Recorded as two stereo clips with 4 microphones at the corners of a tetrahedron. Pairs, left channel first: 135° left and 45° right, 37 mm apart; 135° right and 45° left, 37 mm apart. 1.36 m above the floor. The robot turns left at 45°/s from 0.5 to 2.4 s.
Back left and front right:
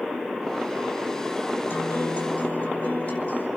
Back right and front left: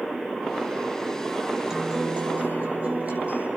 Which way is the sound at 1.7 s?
120° left.